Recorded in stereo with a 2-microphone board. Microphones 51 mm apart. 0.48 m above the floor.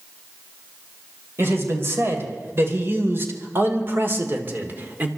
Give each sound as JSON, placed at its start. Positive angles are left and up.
{"t": 1.4, "sound": "a man speaking", "side_deg": -50, "distance_m": 3.0}